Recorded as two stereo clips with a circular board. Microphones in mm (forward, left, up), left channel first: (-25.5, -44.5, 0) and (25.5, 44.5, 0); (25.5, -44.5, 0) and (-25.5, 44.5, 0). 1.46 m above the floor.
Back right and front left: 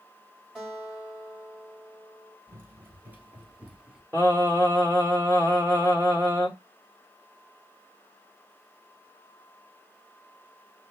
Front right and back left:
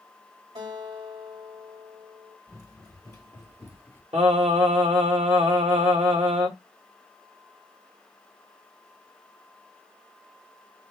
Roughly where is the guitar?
Behind left.